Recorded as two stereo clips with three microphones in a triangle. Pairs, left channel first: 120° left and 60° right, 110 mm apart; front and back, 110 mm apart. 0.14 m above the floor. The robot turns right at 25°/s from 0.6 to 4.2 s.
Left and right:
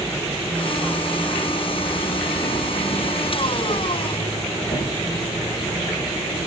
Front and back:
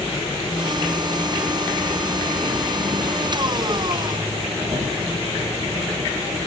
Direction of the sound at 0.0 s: 45° left.